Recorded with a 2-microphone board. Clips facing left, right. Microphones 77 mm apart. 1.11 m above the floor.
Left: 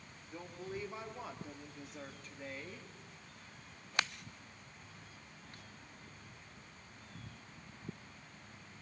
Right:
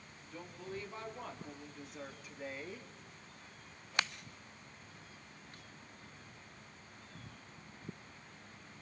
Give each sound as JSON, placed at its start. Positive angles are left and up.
{"t": 0.3, "sound": "a woman speaking", "side_deg": 20, "distance_m": 3.0}